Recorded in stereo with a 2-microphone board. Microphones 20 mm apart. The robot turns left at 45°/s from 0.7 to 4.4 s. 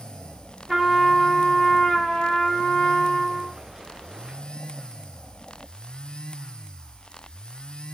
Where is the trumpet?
155° right, 0.9 m; by 3.5 s 75° left, 0.9 m.